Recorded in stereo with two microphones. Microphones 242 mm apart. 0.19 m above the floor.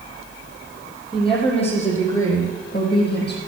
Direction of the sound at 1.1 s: 20° left (ahead or behind).